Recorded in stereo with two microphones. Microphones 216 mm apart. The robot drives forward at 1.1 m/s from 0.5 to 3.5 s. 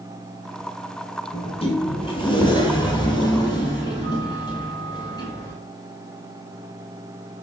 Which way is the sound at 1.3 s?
25° left (ahead or behind).